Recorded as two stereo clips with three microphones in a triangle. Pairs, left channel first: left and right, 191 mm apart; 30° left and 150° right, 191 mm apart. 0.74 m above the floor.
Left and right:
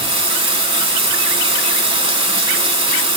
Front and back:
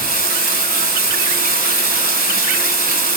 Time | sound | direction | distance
0.0 | running water | 145° right | 0.9 m